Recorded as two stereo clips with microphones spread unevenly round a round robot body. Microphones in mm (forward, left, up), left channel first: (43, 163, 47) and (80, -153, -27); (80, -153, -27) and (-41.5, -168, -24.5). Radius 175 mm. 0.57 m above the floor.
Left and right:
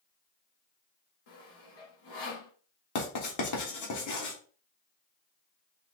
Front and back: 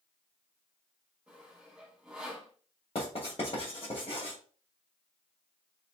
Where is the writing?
65° left, 1.7 m.